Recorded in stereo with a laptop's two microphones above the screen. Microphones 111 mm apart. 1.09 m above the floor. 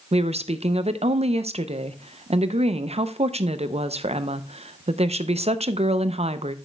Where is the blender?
I don't hear a blender.